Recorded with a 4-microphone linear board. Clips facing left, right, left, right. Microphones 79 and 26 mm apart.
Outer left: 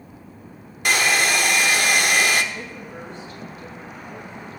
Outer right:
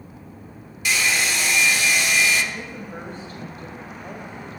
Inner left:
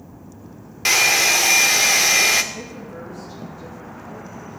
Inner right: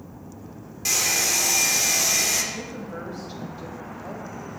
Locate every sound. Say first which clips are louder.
0.8 s a hair dryer: outer left 3 dB, inner left 8 dB; 50° left (ahead or behind), 0.6 m
2.5 s a woman speaking: outer right 1 dB, even; 40° right (ahead or behind), 2.5 m